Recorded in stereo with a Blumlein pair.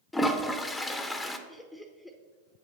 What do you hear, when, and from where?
0.1 s a toilet flushing: 5° left, 0.8 m
1.5 s laughter: 5° left, 0.8 m